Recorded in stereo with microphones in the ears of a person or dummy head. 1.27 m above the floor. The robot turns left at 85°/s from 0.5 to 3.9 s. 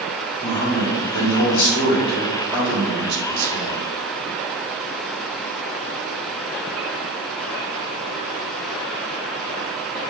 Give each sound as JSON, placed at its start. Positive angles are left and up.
{"t": 0.4, "sound": "a man speaking", "azimuth_deg": 165, "distance_m": 1.6}